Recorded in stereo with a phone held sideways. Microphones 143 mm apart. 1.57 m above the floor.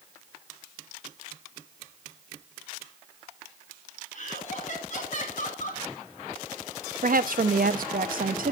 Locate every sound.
4.1 s laughter: 55° left (ahead or behind), 3 m
7.0 s a woman speaking: 70° right (ahead or behind), 0.8 m